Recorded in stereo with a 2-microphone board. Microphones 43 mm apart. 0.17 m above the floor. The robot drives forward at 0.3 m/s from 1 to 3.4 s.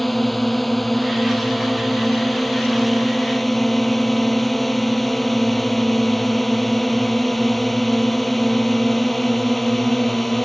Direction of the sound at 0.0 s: Centre (ahead or behind).